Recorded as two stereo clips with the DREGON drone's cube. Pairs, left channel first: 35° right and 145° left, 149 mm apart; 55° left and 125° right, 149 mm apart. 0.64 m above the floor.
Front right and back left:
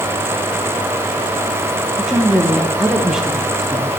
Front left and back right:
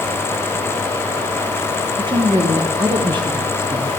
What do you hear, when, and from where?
2.0 s a woman speaking: 130° right, 0.8 m